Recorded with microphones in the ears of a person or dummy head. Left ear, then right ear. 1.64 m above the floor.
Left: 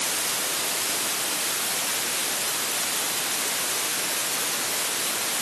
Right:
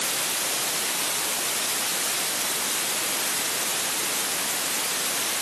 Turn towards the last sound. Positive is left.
No sound to turn to.